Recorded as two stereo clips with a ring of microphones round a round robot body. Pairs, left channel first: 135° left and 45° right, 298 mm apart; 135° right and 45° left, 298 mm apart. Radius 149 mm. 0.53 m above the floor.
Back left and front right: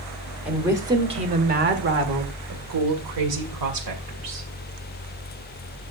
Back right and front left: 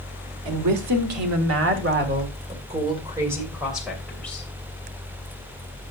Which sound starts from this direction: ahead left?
A woman speaking, at 0.5 s.